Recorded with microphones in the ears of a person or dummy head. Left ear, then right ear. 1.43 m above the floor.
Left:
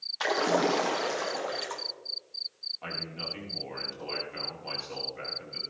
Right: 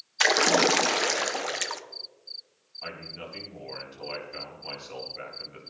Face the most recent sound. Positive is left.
turn(degrees=-10)  # may be behind; listen again after turning